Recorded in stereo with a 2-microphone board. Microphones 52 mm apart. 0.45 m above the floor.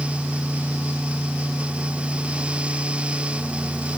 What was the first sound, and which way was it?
Only background noise.